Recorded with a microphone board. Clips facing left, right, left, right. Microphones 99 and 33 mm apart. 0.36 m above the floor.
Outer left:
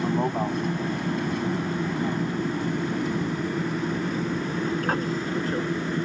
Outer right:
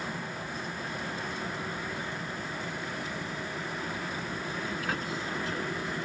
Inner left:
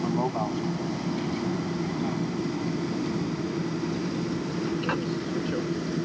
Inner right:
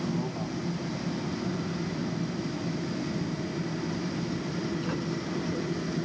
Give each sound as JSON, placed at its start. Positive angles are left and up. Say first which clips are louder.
{"t": 0.0, "sound": "an aircraft", "louder": "outer left 13 dB, inner left 5 dB", "side_deg": 60}